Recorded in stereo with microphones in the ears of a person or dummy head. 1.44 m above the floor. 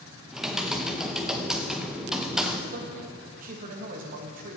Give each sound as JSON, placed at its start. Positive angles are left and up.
{"t": 0.3, "sound": "typing on a keyboard", "side_deg": -5, "distance_m": 1.0}
{"t": 2.7, "sound": "a man speaking", "side_deg": -45, "distance_m": 1.6}